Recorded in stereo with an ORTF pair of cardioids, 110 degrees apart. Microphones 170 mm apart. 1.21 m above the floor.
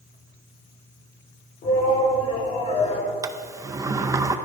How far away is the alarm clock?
No alarm clock in this recording.